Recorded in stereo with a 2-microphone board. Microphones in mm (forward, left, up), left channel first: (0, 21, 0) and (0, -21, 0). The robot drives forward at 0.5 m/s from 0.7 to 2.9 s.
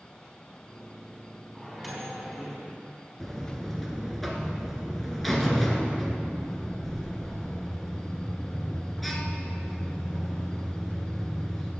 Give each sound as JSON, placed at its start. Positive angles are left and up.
{"t": 1.6, "sound": "a microwave", "side_deg": 5, "distance_m": 3.5}
{"t": 3.2, "sound": "a buzzer", "side_deg": 5, "distance_m": 1.5}